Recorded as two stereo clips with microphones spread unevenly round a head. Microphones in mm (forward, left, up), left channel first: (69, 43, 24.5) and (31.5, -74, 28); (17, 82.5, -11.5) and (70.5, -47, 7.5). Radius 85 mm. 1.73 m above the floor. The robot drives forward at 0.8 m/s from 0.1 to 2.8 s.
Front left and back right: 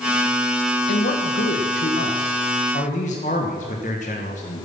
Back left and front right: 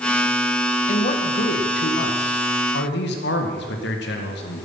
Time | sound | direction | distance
0.9 | a man speaking | 75° left | 1.8 m